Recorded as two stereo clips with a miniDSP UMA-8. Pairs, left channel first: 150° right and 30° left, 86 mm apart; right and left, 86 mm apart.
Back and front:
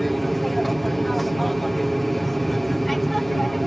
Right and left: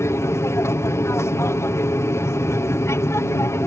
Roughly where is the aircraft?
Ahead right.